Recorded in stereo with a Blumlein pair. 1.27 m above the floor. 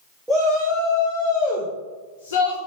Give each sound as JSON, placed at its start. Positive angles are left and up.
{"t": 0.3, "sound": "a shout", "azimuth_deg": -5, "distance_m": 1.2}